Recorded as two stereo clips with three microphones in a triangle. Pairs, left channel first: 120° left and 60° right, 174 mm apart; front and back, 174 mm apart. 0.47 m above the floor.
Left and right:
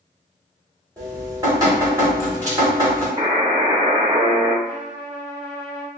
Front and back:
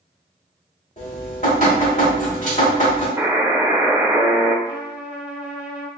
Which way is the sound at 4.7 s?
100° right.